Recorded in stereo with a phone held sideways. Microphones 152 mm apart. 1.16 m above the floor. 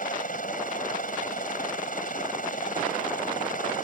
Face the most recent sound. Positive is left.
turn(degrees=65)  # may be behind; listen again after turning